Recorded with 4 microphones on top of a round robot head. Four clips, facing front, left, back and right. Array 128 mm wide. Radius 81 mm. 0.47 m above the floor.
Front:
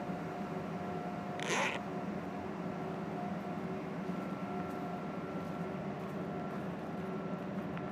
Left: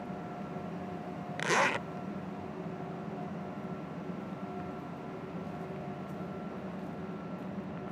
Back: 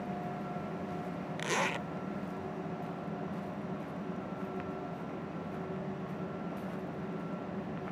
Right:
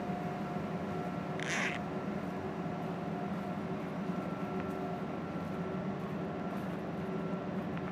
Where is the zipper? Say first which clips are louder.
Left 11 dB, back 3 dB; 95° left.